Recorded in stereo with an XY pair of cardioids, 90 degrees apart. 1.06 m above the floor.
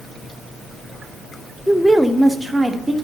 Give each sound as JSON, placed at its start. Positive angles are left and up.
{"t": 1.7, "sound": "a woman speaking", "azimuth_deg": 10, "distance_m": 0.7}